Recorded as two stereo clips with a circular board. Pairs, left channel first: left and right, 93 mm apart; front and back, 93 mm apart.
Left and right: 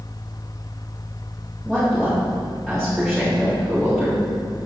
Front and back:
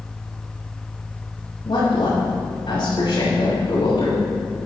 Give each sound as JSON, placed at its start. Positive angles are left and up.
{"t": 1.6, "sound": "a woman speaking", "azimuth_deg": 5, "distance_m": 3.5}